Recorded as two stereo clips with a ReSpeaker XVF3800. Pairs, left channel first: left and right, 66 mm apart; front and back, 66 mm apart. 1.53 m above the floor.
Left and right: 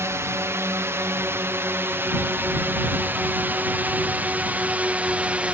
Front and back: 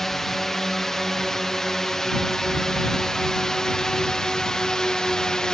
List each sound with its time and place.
0.0 s a drone: 80° right; by 5.5 s 60° right